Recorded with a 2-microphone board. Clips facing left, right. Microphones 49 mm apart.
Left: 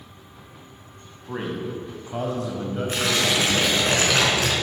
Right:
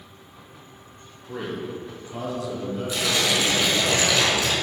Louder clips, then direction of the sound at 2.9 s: Left 1 dB; 50° left (ahead or behind).